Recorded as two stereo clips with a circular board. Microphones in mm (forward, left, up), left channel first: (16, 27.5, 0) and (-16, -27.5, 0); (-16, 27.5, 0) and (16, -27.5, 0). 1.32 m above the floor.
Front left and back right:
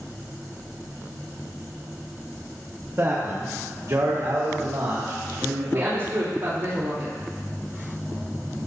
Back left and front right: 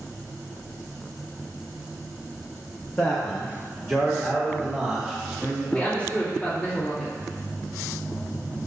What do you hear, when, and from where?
3.0 s a man speaking: 170° right, 1.3 m; by 6.1 s 145° right, 2.5 m
5.7 s a woman speaking: 175° right, 3 m